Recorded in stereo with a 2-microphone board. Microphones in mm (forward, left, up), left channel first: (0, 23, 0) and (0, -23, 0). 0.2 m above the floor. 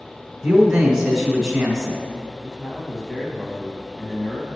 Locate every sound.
0.4 s a man speaking: 10° right (ahead or behind), 1.1 m
2.4 s a man speaking: 10° left (ahead or behind), 1.1 m